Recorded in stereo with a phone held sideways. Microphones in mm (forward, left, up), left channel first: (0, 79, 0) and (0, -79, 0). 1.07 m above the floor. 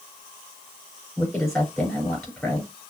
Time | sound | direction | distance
1.2 | a woman speaking | 5° left (ahead or behind) | 4.5 m